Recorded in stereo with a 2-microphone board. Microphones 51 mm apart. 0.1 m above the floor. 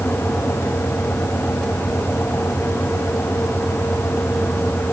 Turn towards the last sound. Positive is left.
No sound to turn to.